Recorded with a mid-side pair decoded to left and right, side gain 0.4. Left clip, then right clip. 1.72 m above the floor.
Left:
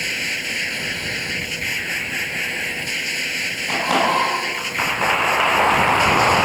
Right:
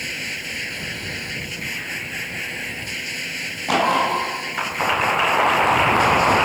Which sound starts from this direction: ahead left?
A machine running, at 0.0 s.